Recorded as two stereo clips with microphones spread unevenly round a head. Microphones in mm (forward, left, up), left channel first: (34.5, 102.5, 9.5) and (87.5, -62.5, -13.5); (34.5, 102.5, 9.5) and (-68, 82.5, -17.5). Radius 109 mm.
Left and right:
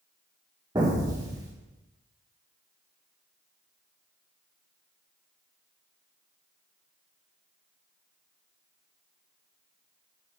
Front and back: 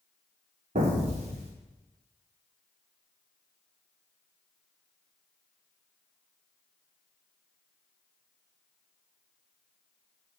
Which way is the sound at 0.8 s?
145° right.